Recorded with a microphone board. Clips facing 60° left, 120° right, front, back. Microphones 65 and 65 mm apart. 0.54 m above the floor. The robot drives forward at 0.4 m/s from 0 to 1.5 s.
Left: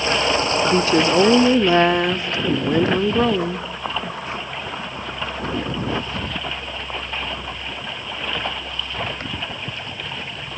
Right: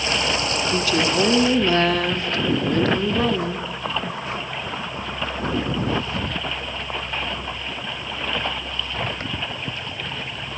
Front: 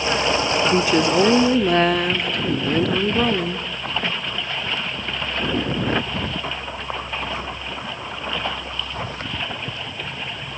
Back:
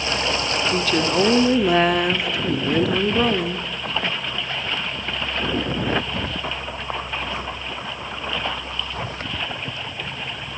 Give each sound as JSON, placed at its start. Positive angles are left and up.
{"t": 0.6, "sound": "a woman speaking", "azimuth_deg": 45, "distance_m": 0.8}